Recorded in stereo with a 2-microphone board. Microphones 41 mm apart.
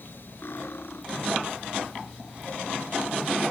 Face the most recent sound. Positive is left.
turn(degrees=60)  # may be behind; listen again after turning